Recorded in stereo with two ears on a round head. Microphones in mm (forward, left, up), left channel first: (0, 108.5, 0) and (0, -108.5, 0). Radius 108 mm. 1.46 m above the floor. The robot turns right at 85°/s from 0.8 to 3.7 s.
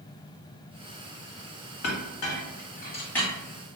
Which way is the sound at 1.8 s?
55° left (ahead or behind).